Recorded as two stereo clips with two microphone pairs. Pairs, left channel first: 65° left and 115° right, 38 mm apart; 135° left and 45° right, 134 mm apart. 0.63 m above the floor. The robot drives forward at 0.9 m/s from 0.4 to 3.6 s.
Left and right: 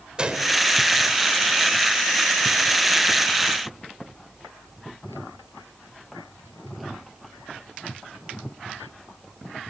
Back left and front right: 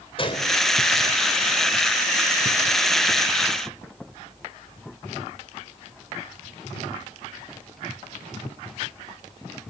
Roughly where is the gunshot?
Behind.